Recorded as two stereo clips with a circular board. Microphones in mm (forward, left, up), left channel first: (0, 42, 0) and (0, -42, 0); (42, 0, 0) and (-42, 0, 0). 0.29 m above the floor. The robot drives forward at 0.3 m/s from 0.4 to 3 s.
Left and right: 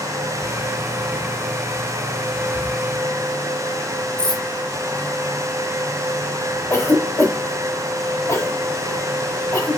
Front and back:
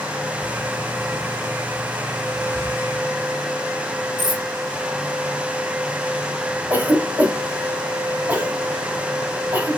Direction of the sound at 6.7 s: 125° left.